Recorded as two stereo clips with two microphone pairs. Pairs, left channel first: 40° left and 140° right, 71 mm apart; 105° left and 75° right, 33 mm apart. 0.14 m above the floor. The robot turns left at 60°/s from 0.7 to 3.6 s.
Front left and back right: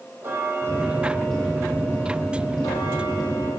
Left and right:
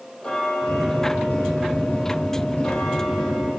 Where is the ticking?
165° left, 2.5 m; by 3.5 s 5° right, 2.5 m.